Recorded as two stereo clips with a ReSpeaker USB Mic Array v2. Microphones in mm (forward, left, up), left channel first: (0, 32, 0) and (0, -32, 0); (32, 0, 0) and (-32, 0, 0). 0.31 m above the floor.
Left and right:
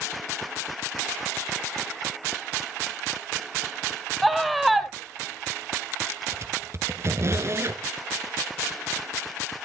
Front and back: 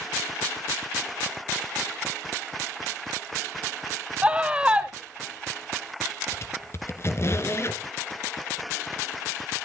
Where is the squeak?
45° right, 1.2 m.